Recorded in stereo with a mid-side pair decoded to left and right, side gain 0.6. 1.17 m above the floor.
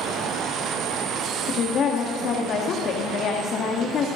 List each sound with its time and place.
1.5 s a woman speaking: 50° left, 1.6 m